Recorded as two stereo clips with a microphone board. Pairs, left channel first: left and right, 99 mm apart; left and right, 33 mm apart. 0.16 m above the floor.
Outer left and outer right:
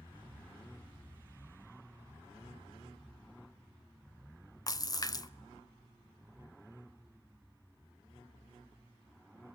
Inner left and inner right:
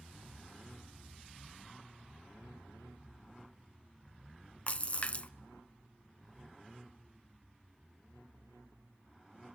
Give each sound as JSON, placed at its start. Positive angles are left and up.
{"t": 4.7, "sound": "a splash", "side_deg": 35, "distance_m": 0.5}